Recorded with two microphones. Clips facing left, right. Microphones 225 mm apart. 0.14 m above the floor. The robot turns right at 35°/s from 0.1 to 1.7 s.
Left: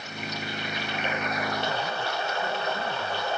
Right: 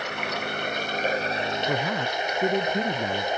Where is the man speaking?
80° right; by 3.3 s 85° right.